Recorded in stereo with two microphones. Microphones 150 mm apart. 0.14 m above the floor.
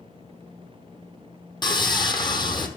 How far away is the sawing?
About 1.0 m.